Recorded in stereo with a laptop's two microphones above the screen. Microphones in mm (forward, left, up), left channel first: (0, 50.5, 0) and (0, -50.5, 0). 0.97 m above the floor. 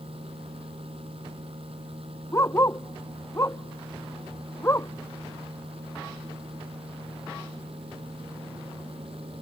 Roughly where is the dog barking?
Left.